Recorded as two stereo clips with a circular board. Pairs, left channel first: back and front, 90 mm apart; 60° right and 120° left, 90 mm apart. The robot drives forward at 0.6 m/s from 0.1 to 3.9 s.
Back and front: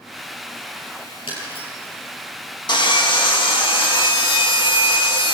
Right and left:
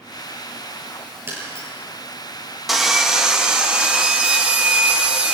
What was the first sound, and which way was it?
Breaking glass, straight behind.